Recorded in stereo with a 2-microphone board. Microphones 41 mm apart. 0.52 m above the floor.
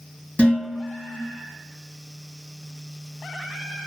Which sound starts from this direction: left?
Dishes clattering, at 0.4 s.